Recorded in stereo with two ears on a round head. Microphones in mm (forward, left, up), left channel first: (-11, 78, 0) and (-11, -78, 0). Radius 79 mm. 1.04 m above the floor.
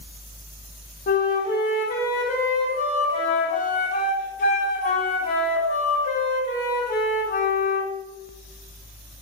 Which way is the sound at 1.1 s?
50° left (ahead or behind).